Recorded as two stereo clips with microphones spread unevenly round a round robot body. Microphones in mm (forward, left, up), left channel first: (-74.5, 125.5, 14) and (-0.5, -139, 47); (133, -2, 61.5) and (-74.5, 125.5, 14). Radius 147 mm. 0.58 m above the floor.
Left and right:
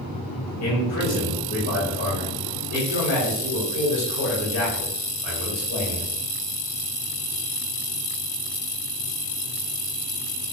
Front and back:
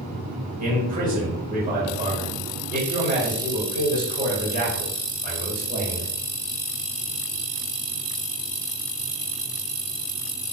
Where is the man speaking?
135° left, 1.3 m.